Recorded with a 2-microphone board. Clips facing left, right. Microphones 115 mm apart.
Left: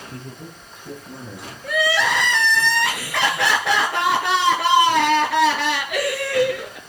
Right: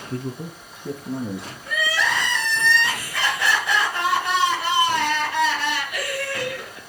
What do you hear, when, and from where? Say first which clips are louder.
0.1 s a man speaking: right 6 dB; 65° right (ahead or behind), 3.5 m; by 1.5 s 55° right (ahead or behind), 4.5 m
1.6 s crying: left 5 dB; 65° left (ahead or behind), 2.5 m